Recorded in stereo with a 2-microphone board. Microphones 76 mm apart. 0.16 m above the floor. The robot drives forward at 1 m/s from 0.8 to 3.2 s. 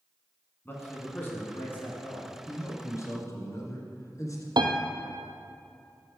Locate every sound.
0.7 s a man speaking: 25° left (ahead or behind), 1.8 m; by 2.4 s 20° left (ahead or behind), 2 m
2.5 s a man speaking: 35° left (ahead or behind), 2 m; by 4.5 s 45° left (ahead or behind), 1.7 m
4.6 s a piano: 70° right (ahead or behind), 0.7 m